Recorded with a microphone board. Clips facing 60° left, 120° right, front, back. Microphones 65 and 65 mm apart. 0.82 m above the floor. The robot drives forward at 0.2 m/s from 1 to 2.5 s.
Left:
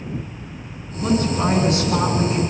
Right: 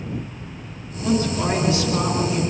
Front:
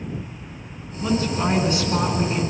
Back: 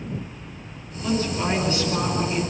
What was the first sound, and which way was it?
A woman speaking, 80° left.